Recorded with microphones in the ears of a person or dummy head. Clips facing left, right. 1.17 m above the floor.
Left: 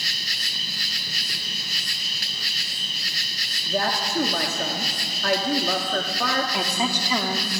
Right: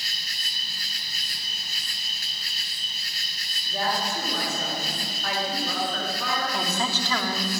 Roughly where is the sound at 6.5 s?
Centre.